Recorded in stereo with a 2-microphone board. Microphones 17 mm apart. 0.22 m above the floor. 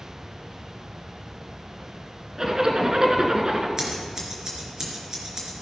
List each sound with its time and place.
2.4 s a zipper: 30° right (ahead or behind), 1.4 m
3.8 s scissors: 30° right (ahead or behind), 3.5 m